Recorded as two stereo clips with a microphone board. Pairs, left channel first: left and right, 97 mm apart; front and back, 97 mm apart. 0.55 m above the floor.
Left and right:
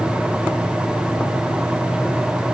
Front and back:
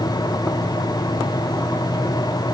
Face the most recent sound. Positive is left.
No sound to turn to.